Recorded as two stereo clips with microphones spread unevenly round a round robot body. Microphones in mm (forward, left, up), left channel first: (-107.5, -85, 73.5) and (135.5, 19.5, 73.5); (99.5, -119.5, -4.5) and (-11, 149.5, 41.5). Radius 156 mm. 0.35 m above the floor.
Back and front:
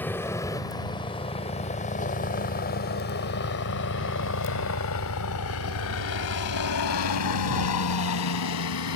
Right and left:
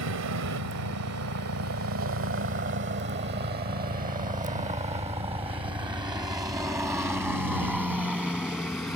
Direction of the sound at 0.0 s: 120° left.